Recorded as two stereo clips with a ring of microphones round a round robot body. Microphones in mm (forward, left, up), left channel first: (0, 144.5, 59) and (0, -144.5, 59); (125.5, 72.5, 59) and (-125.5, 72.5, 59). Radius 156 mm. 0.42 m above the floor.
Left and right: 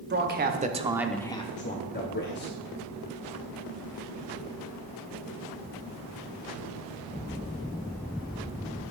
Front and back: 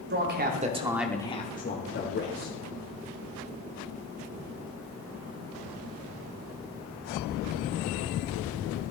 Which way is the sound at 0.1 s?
140° right.